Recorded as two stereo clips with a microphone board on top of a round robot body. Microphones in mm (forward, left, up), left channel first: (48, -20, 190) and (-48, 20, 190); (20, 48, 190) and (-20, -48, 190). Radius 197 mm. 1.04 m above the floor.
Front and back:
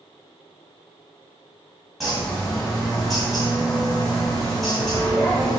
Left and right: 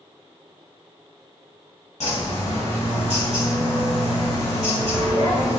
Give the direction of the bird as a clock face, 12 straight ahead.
10 o'clock.